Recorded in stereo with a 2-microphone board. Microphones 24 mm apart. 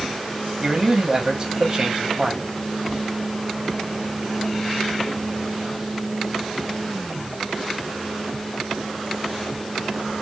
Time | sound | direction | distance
0.6 | a man speaking | 20° right (ahead or behind) | 1.2 m